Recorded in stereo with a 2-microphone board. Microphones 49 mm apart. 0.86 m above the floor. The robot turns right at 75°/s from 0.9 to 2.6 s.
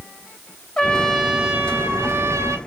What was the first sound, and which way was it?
A trumpet, 165° left.